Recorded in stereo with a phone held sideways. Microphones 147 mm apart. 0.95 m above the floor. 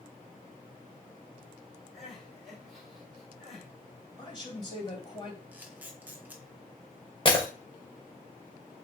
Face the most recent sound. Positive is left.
turn(degrees=35)  # may be behind; listen again after turning